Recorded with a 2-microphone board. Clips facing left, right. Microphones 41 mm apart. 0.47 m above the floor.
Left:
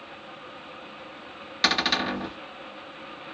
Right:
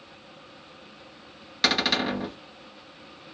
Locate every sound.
1.6 s a cupboard door: centre (ahead or behind), 0.6 m